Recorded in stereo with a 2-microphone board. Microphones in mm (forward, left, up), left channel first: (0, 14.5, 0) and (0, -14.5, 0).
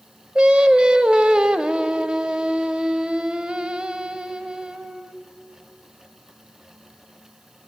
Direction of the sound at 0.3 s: 35° right (ahead or behind).